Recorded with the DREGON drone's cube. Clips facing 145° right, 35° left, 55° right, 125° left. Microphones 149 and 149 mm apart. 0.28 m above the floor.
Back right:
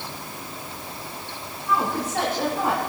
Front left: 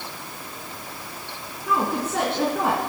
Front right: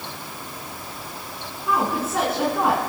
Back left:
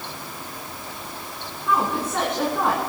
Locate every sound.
1.7 s a woman speaking: 30° left, 3.5 m